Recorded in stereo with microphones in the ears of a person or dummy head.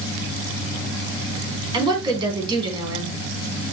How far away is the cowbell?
I don't hear a cowbell.